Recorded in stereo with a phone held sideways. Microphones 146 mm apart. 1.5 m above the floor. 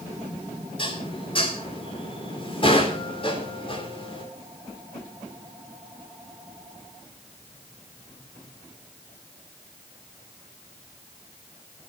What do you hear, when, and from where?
0.8 s dishes clattering: 40° left (ahead or behind), 3 m